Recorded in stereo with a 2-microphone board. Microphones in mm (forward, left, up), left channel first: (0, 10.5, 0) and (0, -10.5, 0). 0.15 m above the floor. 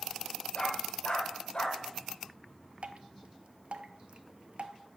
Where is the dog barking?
50° left (ahead or behind), 2 m.